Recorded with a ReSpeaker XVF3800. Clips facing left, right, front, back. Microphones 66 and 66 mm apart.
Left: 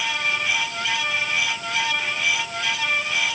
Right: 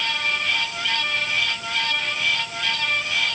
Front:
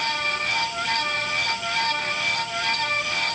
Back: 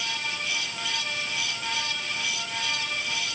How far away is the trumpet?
No trumpet in this recording.